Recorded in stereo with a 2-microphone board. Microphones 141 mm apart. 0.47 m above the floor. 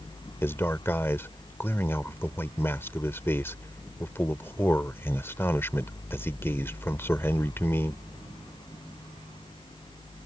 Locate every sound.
0.4 s a man speaking: 15° left (ahead or behind)